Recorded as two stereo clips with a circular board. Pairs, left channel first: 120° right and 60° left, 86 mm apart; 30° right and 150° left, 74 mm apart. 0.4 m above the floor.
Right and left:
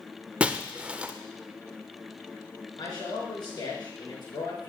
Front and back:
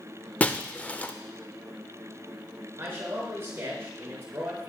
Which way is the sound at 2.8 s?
150° right.